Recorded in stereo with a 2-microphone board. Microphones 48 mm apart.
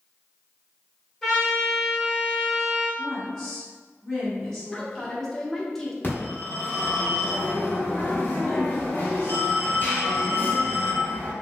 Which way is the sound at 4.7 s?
5° left (ahead or behind).